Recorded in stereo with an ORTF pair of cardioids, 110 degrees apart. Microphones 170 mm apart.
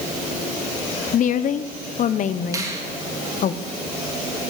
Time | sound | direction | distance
1.1 | a woman speaking | 50° left | 1.1 m
2.5 | a finger snap | 20° right | 2.5 m